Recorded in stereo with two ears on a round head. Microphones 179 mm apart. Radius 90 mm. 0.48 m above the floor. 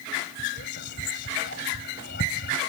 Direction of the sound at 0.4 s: 55° left (ahead or behind).